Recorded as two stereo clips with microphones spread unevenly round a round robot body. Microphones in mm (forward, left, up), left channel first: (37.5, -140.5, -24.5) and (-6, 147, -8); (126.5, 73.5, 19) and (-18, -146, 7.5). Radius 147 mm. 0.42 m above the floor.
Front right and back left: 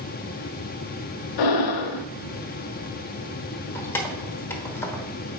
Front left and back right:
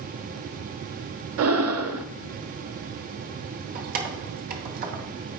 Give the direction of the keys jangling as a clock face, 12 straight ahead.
5 o'clock.